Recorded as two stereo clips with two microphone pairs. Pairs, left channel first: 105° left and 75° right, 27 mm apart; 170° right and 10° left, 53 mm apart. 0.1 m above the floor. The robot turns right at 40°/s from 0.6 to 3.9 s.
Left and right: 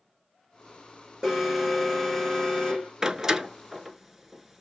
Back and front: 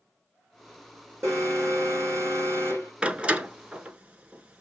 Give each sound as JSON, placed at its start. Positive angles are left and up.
{"t": 1.2, "sound": "an alarm", "azimuth_deg": -15, "distance_m": 3.5}
{"t": 3.0, "sound": "a door slam", "azimuth_deg": -25, "distance_m": 0.8}